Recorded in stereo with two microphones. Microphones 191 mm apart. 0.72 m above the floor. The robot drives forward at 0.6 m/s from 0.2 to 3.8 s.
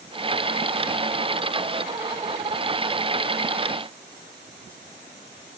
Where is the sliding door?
I don't hear a sliding door.